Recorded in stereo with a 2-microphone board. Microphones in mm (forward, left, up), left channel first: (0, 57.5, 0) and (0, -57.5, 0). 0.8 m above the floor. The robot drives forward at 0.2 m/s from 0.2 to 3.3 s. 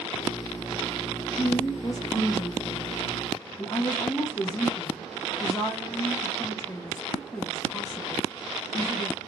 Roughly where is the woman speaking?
Left.